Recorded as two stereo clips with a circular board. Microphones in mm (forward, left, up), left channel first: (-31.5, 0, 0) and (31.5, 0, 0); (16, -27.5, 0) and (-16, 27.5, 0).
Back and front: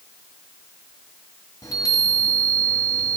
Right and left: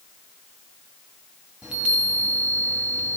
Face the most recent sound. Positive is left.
turn(degrees=-165)